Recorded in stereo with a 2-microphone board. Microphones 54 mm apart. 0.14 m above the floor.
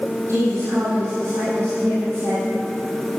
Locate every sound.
0.3 s a woman speaking: 65° right (ahead or behind), 5.5 m